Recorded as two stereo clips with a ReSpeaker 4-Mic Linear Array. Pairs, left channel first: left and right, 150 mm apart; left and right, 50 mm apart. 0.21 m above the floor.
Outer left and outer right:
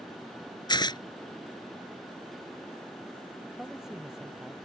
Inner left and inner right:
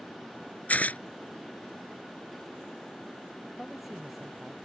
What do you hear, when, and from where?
0.7 s tearing paper: 30° left (ahead or behind)
3.6 s a man speaking: 5° right (ahead or behind)